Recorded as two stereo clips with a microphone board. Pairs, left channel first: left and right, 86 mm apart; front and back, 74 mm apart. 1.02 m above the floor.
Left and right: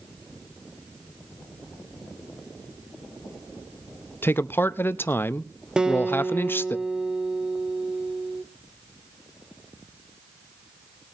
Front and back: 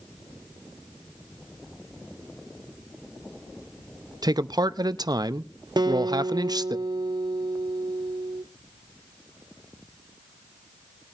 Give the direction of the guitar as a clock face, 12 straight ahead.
6 o'clock.